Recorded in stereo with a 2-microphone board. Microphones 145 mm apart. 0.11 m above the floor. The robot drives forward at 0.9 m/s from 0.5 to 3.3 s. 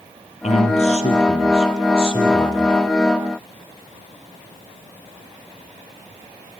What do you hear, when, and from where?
0.4 s a man speaking: 55° left (ahead or behind), 3 m; by 2.8 s 35° left (ahead or behind), 4 m